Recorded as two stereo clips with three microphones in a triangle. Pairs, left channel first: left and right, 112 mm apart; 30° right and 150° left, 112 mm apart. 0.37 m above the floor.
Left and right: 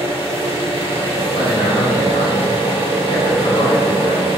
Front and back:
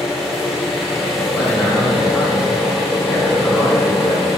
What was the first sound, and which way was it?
An engine running, 125° right.